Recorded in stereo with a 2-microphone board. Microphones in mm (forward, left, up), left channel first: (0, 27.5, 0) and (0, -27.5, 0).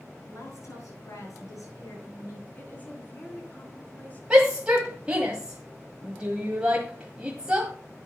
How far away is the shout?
About 1.5 m.